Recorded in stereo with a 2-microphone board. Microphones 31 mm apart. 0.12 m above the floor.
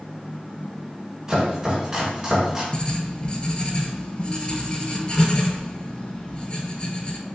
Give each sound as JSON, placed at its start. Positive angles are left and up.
{"t": 1.3, "sound": "chopping", "side_deg": -20, "distance_m": 1.5}
{"t": 2.7, "sound": "writing", "side_deg": 40, "distance_m": 0.6}